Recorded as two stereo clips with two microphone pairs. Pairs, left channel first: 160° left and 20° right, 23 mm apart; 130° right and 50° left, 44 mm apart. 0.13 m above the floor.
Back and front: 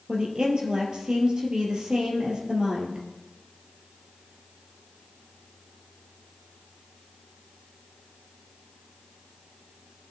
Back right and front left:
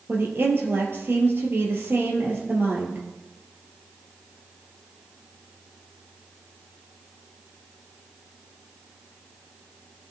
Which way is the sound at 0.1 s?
35° left.